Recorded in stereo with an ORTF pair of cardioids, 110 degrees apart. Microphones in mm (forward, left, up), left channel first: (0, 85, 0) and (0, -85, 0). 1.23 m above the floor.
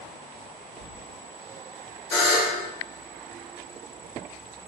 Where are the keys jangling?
70° left, 1.3 m.